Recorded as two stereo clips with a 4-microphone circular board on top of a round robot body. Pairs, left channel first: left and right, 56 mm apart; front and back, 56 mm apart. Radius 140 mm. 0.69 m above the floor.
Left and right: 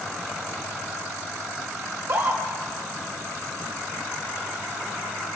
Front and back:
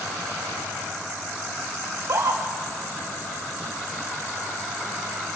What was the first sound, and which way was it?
A scream, 140° right.